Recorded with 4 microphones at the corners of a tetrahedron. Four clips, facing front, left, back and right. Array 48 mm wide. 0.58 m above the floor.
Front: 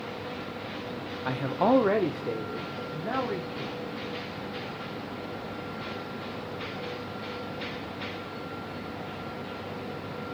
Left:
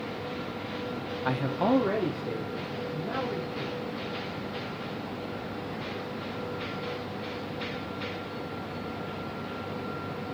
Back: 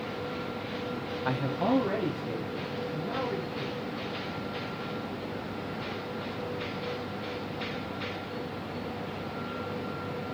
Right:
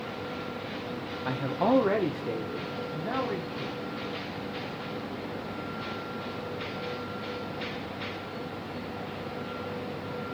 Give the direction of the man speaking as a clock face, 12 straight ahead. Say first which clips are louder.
Even, front 4 dB; 8 o'clock.